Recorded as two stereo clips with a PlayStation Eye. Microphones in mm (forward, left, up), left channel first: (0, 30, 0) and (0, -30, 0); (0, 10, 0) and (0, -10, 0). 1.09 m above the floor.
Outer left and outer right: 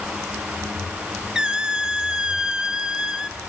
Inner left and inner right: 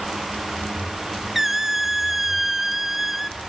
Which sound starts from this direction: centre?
A squeak, at 1.4 s.